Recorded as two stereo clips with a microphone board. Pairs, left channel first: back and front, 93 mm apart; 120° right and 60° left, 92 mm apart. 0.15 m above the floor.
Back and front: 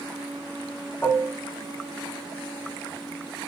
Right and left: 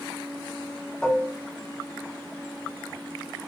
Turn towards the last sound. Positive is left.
turn(degrees=175)